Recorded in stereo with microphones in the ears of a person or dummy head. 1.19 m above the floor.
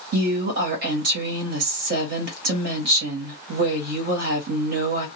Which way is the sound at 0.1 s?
50° right (ahead or behind).